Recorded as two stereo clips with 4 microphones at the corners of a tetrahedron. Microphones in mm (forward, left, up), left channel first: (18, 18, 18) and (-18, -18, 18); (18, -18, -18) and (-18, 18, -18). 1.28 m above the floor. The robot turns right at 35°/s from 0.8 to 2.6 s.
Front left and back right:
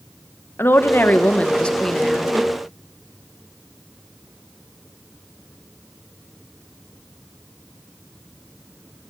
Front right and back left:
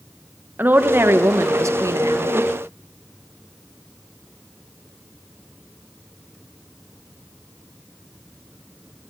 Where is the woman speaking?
85° left, 0.8 m; by 2.4 s 140° left, 0.8 m.